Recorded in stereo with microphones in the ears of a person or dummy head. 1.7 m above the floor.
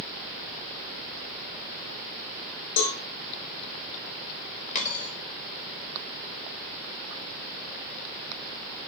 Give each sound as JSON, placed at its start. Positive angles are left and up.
{"t": 2.8, "sound": "a cowbell", "side_deg": 65, "distance_m": 1.4}
{"t": 4.8, "sound": "a dropped coin", "side_deg": 40, "distance_m": 2.0}